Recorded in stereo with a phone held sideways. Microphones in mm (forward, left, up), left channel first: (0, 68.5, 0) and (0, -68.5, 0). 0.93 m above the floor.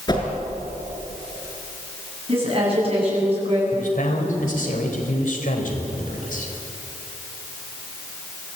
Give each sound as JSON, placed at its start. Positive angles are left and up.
{"t": 0.1, "sound": "a whoosh", "side_deg": 30, "distance_m": 5.0}
{"t": 2.3, "sound": "a woman speaking", "side_deg": -40, "distance_m": 9.0}
{"t": 3.7, "sound": "a man speaking", "side_deg": 70, "distance_m": 3.5}